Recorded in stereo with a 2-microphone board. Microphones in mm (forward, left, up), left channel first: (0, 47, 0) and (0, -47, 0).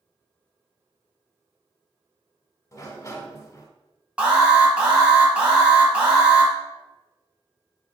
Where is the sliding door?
35° left (ahead or behind), 0.6 m.